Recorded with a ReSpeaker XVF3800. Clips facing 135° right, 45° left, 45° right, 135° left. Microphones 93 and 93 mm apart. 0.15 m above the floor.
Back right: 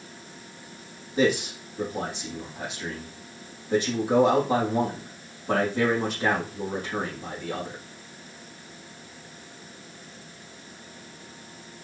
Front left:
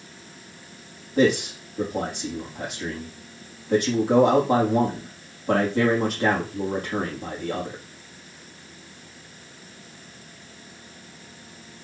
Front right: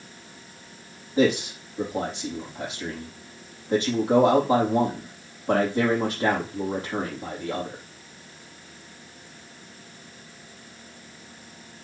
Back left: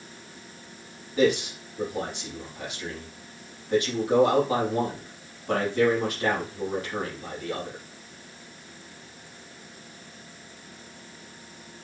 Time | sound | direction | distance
1.2 | a man speaking | 15° left | 5.5 m